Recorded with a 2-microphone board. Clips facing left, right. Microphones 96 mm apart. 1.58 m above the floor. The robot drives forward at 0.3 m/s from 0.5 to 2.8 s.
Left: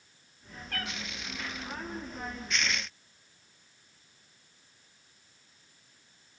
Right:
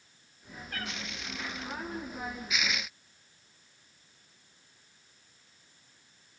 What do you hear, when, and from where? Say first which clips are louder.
0.7 s a cat meowing: left 1 dB; 70° left (ahead or behind), 6 m